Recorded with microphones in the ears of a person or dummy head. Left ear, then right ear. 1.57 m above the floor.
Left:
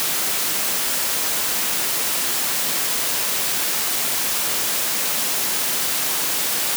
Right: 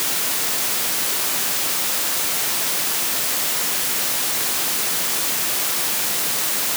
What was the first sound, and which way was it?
Only background noise.